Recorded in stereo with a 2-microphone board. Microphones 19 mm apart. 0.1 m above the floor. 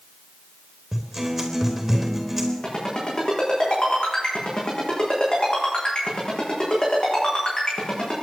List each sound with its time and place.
0.9 s a guitar: 15° right (ahead or behind), 3 m
2.6 s a ringtone: 50° left (ahead or behind), 6 m